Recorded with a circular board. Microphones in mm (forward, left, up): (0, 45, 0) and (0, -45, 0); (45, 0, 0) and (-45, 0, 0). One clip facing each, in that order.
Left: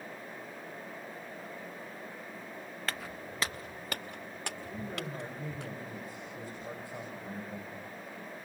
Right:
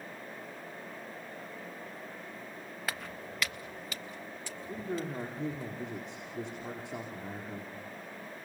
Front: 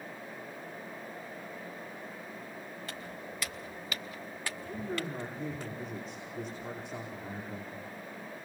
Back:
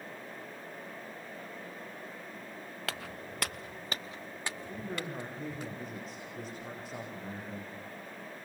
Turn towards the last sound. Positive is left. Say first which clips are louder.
# right 6 dB, front 5 dB
turn(degrees=-90)